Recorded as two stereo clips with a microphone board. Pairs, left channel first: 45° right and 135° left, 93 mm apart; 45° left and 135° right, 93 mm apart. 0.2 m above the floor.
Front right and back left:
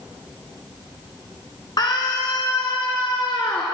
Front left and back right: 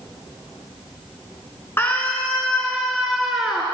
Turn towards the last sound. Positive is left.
turn(degrees=-55)